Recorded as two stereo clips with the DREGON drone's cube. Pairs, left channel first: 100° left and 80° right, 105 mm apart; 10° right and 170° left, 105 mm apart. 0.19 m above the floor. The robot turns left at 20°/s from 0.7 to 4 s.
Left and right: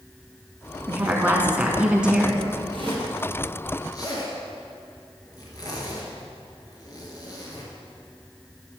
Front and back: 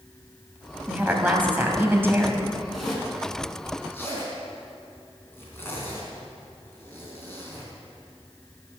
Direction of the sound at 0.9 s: 125° right.